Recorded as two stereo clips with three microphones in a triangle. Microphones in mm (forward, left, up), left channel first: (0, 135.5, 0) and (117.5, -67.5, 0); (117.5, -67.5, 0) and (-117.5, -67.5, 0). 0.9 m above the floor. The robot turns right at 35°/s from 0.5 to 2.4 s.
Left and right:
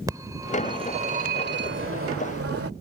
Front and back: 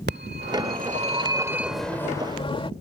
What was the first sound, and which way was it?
A phone ringing, 135° right.